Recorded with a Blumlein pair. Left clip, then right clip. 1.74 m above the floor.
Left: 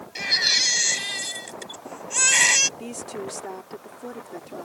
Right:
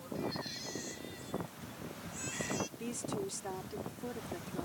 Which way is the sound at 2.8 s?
15° left.